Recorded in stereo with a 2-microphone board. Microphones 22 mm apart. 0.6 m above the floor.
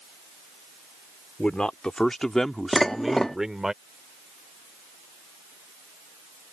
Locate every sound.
1.4 s a man speaking: 60° left (ahead or behind); by 3.7 s 25° right (ahead or behind)
2.7 s dishes clattering: 20° left (ahead or behind)